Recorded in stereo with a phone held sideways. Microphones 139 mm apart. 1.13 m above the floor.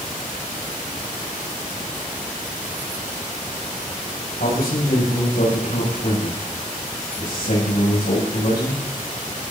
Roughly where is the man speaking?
Left.